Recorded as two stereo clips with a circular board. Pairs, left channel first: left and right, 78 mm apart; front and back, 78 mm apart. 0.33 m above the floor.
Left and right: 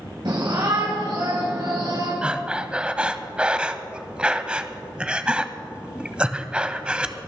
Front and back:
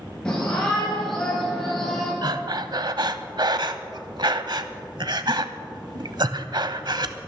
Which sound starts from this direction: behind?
Breathing, at 2.2 s.